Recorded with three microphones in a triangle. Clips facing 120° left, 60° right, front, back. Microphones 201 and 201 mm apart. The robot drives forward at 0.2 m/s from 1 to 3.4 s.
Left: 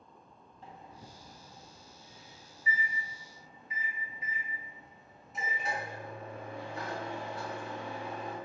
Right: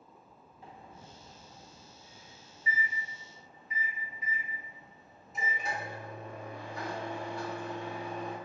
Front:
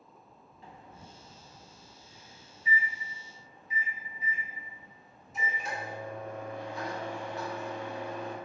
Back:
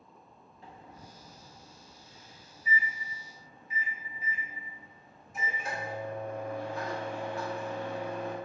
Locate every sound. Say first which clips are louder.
0.6 s a microwave: even, back 1 dB; 140° right, 1.4 m; by 8.3 s 150° right, 1.7 m